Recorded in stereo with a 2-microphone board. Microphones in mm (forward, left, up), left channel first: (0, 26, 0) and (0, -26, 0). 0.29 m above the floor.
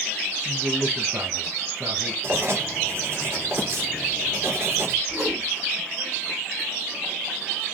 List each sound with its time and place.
0.5 s a man speaking: 40° right (ahead or behind), 1.9 m
2.2 s writing: 50° right (ahead or behind), 3.5 m
5.1 s a whoosh: 40° right (ahead or behind), 4.5 m